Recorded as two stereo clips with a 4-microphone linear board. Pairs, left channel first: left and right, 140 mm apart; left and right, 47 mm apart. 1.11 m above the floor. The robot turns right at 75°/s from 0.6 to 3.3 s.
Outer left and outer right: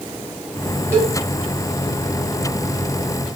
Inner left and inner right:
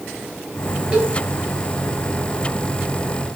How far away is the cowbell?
About 1.3 m.